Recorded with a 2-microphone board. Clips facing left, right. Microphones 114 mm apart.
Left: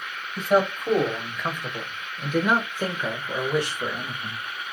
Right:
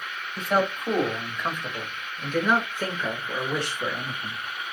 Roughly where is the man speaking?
Centre.